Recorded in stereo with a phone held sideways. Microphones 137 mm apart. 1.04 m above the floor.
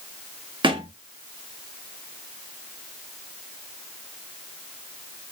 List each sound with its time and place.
0.6 s a thud: 35° right (ahead or behind), 0.5 m